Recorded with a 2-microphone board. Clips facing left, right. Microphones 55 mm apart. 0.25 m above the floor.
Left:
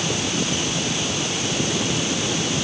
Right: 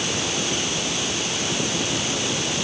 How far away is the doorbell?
No doorbell in this recording.